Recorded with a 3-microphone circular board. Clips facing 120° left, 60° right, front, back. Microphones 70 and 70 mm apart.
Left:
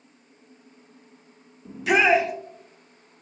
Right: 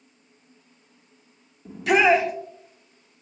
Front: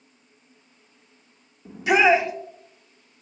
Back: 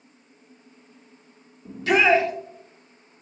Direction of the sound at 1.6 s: 30° left.